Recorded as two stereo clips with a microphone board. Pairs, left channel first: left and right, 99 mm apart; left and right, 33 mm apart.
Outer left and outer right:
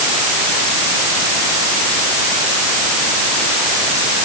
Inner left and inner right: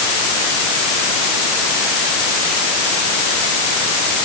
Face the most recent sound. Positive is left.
No sound to turn to.